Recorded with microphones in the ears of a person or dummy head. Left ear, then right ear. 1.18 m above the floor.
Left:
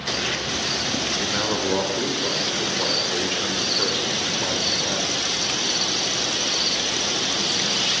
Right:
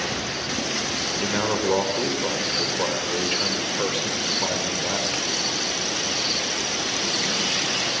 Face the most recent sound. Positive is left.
turn(degrees=-20)  # may be behind; listen again after turning